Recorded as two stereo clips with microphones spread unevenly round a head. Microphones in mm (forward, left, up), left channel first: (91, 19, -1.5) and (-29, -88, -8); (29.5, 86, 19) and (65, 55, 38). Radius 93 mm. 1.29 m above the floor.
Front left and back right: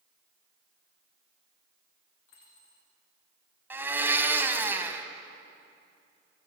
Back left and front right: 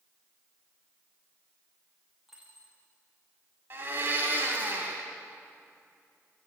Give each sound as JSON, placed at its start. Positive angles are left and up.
{"t": 2.3, "sound": "a dropped coin", "azimuth_deg": 40, "distance_m": 9.0}
{"t": 3.7, "sound": "a blender", "azimuth_deg": -60, "distance_m": 2.0}